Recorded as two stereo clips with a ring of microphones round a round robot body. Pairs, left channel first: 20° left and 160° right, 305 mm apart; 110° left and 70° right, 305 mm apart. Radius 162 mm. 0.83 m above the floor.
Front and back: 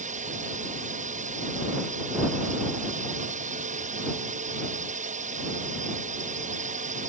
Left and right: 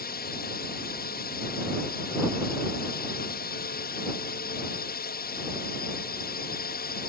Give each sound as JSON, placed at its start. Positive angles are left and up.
{"t": 0.0, "sound": "a drone", "azimuth_deg": 150}